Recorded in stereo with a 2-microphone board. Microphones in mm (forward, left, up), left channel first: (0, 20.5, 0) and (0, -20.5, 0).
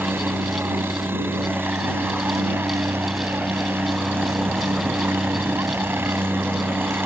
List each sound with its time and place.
0.0 s a helicopter: 65° right (ahead or behind)